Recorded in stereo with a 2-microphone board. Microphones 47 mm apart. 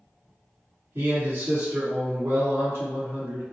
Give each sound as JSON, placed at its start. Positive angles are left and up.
{"t": 0.9, "sound": "a man speaking", "side_deg": -55, "distance_m": 1.4}